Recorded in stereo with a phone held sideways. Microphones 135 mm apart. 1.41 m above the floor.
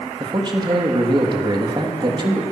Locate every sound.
0.2 s a man speaking: 35° right (ahead or behind), 3 m